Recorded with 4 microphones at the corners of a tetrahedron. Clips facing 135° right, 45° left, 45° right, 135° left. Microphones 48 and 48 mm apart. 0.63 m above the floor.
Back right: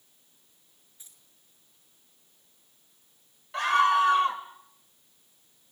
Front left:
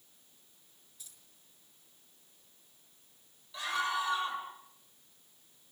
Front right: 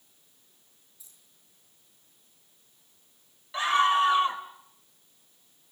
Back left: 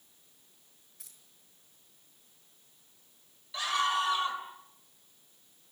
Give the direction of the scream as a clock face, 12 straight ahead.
3 o'clock.